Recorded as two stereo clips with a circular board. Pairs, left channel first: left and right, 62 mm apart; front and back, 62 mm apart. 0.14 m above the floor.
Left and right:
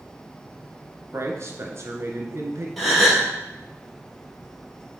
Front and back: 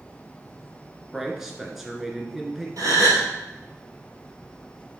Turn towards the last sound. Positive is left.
turn(degrees=180)